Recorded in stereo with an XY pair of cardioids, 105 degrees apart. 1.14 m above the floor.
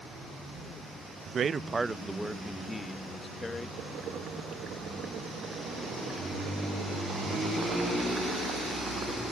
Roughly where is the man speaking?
Ahead right.